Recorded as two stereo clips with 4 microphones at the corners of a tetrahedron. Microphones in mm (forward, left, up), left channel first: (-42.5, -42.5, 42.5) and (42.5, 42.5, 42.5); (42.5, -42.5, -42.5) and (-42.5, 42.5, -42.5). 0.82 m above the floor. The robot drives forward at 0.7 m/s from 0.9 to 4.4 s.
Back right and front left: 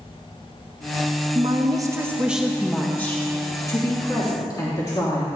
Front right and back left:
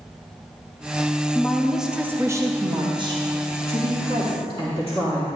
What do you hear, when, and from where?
1.4 s a woman speaking: 30° left, 0.9 m; by 5.3 s 170° left, 1.8 m